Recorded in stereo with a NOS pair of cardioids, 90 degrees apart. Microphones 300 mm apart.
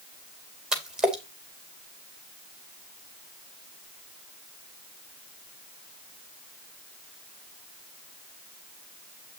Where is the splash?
Straight ahead, 2.5 m.